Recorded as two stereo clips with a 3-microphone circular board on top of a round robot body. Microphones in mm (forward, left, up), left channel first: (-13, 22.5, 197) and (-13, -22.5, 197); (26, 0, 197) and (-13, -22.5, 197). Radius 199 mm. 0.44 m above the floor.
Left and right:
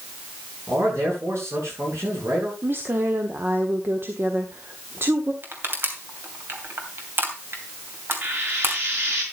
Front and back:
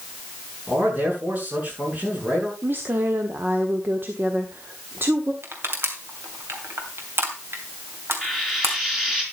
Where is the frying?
65° right, 5.5 m.